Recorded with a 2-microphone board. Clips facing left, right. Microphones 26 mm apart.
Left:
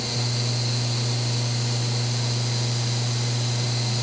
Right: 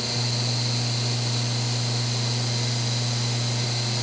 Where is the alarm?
I don't hear an alarm.